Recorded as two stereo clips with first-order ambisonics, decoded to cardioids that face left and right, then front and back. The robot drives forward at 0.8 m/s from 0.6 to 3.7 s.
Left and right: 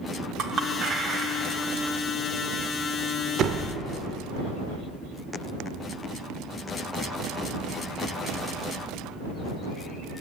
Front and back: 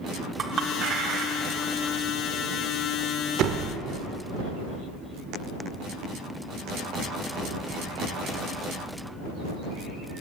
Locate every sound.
0.4 s a clink: 130° right, 1.0 m; by 1.9 s 160° right, 1.8 m
3.4 s a door slam: 140° right, 0.8 m; by 3.8 s 150° right, 0.9 m